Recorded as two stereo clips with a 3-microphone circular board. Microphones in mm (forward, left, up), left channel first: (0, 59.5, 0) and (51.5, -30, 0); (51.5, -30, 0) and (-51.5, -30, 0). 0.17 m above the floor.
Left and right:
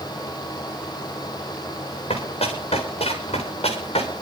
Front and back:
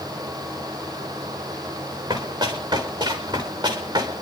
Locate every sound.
2.1 s running footsteps: 140° left, 6 m; by 4.1 s 135° left, 5 m